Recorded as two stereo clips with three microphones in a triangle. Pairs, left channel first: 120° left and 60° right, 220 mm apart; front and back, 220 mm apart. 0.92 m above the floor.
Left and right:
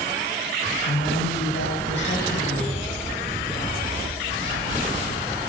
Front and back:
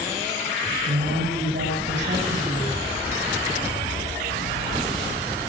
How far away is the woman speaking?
About 6 m.